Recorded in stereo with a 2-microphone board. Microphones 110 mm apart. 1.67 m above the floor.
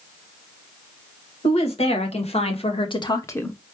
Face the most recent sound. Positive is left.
turn(degrees=10)  # may be behind; listen again after turning